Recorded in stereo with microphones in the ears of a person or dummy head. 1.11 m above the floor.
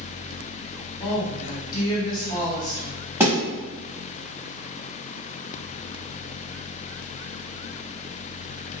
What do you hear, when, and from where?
1.0 s a woman speaking: 25° left (ahead or behind), 1.1 m
3.2 s a thud: 20° right (ahead or behind), 0.9 m